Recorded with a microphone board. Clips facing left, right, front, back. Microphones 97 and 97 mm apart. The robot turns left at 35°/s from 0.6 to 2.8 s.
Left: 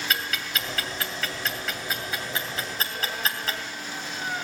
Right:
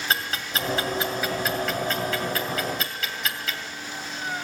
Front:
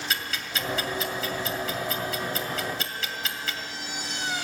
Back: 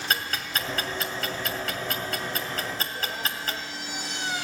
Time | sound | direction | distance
0.1 | ticking | 145° right | 2 m